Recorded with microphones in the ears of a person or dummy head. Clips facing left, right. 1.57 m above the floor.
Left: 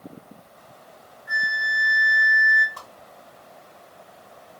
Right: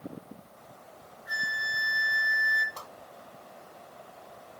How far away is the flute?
About 2 m.